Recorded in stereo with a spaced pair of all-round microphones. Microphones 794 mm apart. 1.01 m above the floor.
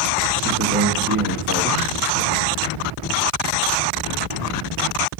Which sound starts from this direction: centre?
A man speaking, at 0.5 s.